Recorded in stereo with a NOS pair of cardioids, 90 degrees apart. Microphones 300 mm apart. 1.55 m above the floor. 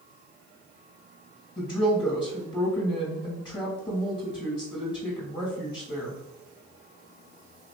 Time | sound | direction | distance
1.6 | a woman speaking | 15° left | 1.9 m